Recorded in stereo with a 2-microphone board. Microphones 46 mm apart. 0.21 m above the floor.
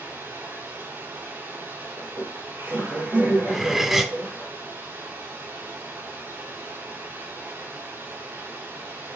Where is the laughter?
75° right (ahead or behind), 4.5 m.